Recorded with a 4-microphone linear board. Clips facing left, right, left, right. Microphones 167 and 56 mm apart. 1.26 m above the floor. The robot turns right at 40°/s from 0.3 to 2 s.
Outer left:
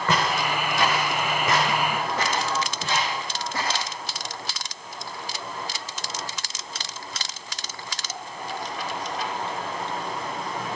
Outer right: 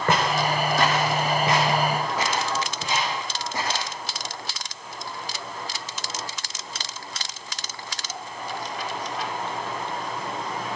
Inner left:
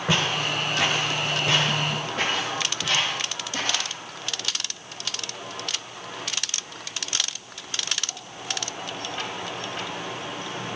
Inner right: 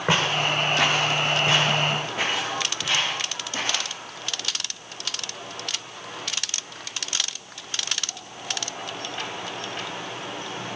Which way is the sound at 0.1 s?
55° right (ahead or behind).